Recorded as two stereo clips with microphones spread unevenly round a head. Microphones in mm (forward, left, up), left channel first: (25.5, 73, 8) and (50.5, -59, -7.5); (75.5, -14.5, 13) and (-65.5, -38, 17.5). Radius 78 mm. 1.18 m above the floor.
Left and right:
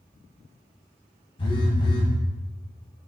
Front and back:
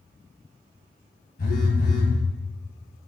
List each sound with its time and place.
1.4 s a phone buzzing: 55° left, 3.5 m